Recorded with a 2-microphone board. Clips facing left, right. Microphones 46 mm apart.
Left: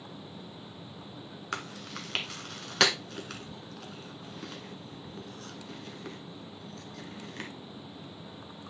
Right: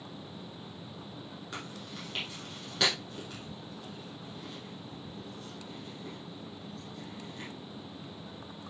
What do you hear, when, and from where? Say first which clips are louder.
1.5 s chewing: left 6 dB; 85° left, 1.5 m